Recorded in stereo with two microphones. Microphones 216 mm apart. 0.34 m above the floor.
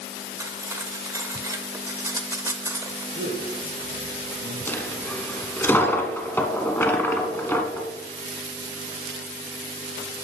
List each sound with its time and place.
0.4 s cutlery clinking: 15° right (ahead or behind), 0.6 m
3.1 s a man speaking: 60° right (ahead or behind), 3 m
4.7 s a dropped coin: 10° left (ahead or behind), 0.7 m